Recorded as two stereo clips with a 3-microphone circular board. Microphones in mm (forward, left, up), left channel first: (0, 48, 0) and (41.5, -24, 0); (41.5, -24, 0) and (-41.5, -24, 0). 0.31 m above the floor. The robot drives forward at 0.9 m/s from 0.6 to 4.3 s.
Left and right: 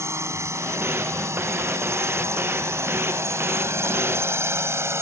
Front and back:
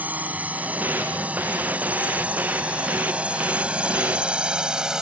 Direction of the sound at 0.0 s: 110° right.